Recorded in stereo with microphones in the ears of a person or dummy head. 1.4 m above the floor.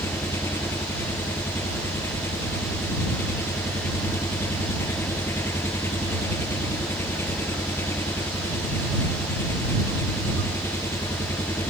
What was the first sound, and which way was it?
An engine running, 15° left (ahead or behind).